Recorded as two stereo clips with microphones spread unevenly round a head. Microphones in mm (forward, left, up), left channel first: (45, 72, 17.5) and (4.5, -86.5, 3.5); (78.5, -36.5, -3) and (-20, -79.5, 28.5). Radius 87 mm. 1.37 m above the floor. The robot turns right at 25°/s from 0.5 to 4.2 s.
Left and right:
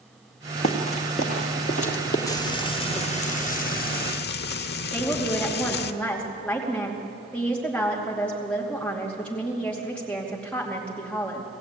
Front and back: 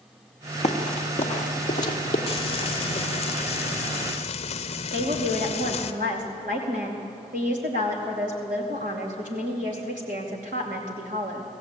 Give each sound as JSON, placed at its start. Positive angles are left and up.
{"t": 0.6, "sound": "running footsteps", "azimuth_deg": 45, "distance_m": 2.0}
{"t": 2.3, "sound": "frying", "azimuth_deg": 5, "distance_m": 0.8}
{"t": 4.9, "sound": "a woman speaking", "azimuth_deg": 160, "distance_m": 2.5}